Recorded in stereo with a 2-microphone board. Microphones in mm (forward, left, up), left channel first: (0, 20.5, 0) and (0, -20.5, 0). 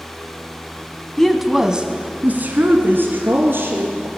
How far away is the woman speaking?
About 1.1 m.